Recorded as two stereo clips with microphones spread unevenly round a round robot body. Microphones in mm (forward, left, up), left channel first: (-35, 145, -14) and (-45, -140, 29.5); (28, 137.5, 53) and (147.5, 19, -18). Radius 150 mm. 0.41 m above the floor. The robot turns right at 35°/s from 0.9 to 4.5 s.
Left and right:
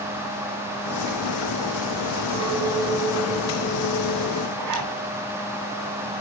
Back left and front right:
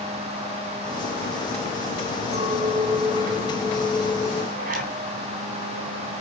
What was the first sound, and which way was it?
A clink, 20° right.